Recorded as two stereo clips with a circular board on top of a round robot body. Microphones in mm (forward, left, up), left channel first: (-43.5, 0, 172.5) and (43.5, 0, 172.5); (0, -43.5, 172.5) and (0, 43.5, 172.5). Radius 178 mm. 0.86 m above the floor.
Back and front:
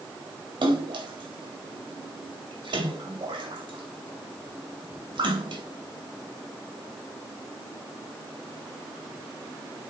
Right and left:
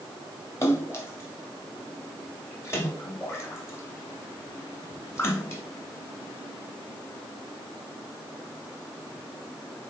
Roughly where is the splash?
Ahead right.